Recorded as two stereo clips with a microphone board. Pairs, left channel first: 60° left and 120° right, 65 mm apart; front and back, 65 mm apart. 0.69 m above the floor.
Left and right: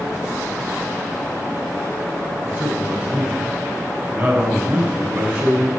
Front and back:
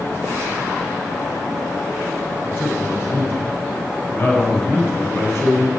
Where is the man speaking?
60° right, 5 m.